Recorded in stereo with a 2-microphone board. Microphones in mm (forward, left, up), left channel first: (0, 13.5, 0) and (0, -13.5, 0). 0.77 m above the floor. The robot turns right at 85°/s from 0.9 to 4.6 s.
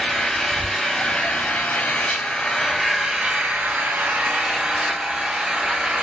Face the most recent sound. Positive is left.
turn(degrees=-25)